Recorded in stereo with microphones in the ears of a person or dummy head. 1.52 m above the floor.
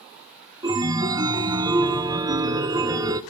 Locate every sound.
0.6 s a chime: 20° right (ahead or behind), 0.8 m